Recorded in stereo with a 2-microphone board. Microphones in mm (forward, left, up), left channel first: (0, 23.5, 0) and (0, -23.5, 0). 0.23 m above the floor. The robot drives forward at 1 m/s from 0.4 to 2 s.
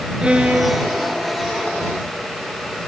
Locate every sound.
0.2 s a violin: 20° right (ahead or behind), 3.5 m; by 1.2 s 25° right (ahead or behind), 2.5 m